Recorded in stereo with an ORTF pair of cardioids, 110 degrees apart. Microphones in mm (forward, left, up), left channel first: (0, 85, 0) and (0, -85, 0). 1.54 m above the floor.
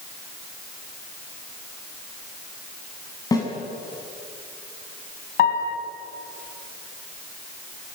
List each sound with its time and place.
3.3 s a snare drum: 20° left, 8 m
5.4 s a piano: 65° left, 4.5 m